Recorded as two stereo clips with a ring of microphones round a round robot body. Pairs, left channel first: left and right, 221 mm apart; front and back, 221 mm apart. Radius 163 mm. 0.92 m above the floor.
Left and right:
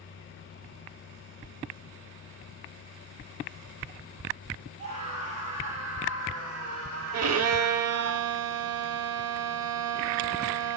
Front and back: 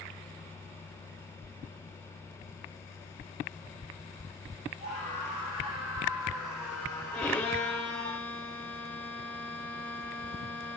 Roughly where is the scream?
Behind right.